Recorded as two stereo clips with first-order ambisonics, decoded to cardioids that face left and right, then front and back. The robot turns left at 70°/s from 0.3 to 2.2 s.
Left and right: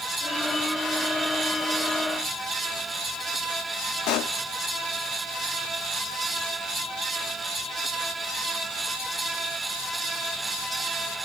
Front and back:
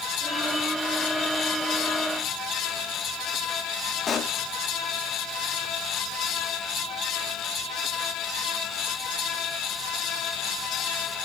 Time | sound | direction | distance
4.1 | a pop | 65° left | 0.9 m